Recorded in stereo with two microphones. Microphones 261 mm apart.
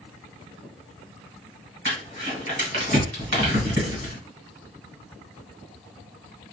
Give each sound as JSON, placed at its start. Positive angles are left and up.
{"t": 1.9, "sound": "crumpling", "side_deg": -45, "distance_m": 1.6}